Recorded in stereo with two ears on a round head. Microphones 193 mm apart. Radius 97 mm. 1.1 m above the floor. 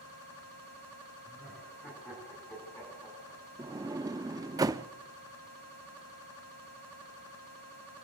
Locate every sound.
1.2 s laughter: 5° left (ahead or behind), 9 m; by 3.4 s 15° left (ahead or behind), 8.5 m
3.6 s a sliding door: 15° right (ahead or behind), 0.6 m